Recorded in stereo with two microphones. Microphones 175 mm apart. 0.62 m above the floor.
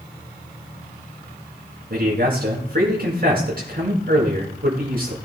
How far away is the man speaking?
About 6.5 m.